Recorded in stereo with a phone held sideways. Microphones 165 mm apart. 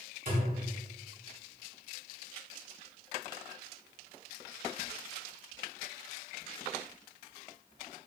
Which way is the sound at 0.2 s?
65° right (ahead or behind).